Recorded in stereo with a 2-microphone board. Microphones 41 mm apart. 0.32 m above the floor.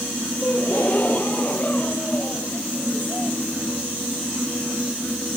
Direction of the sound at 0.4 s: 40° left (ahead or behind).